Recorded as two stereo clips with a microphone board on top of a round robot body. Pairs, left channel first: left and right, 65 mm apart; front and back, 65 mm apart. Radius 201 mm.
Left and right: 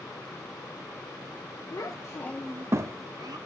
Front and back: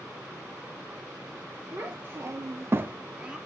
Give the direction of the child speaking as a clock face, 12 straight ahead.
8 o'clock.